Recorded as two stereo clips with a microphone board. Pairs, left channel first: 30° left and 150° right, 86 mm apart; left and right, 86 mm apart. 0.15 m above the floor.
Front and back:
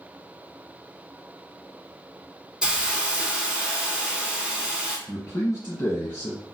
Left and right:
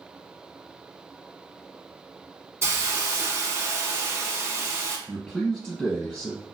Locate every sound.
2.6 s a hiss: 85° right, 0.6 m
5.1 s a man speaking: 10° left, 1.6 m